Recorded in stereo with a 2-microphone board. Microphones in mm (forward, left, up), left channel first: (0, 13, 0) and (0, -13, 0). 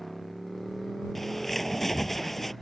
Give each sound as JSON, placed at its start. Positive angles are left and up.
{"t": 0.0, "sound": "a motorcycle", "side_deg": 5}
{"t": 1.1, "sound": "a bird", "side_deg": 10}